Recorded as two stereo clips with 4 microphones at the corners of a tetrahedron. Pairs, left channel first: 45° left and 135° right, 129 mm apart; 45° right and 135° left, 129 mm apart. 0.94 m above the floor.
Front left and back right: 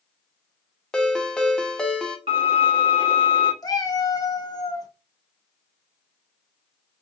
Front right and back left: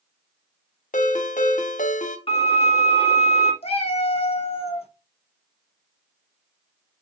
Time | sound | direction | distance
0.9 | a ringtone | 40° right | 0.5 m
2.3 | a violin | 90° right | 1.0 m
3.6 | a cat meowing | 10° right | 0.6 m